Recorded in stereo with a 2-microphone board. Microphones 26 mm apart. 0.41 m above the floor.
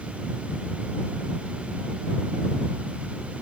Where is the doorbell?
I don't hear a doorbell.